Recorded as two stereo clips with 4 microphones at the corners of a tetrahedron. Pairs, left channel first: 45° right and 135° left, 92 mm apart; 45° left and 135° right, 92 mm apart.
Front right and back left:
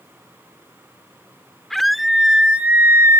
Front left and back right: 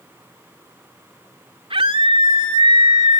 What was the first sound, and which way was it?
A scream, 130° right.